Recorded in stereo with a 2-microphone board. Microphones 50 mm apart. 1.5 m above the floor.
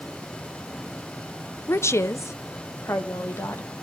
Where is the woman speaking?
55° left (ahead or behind), 0.5 m; by 3.8 s 70° left (ahead or behind), 1.8 m.